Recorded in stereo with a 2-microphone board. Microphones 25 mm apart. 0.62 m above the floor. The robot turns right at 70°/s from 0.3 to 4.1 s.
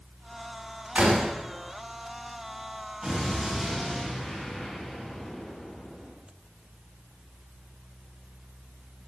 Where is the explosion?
30° right, 2.5 m; by 6.1 s 45° left, 2.5 m.